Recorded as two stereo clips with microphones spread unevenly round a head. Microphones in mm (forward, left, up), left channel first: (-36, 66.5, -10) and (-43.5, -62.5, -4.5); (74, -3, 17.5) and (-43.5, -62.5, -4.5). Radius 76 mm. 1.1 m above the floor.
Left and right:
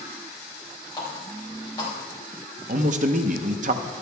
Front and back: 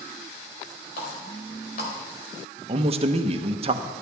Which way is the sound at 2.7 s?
115° right.